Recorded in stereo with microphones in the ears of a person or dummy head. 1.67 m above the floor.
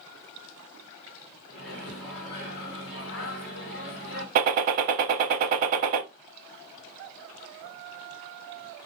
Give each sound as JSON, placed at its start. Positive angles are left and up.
{"t": 1.5, "sound": "a microwave", "side_deg": 65, "distance_m": 1.2}
{"t": 4.3, "sound": "a gunshot", "side_deg": -50, "distance_m": 0.6}